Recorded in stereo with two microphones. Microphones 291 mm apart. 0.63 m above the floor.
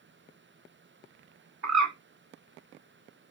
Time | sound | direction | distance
1.6 | a bird | 60° right (ahead or behind) | 1.1 m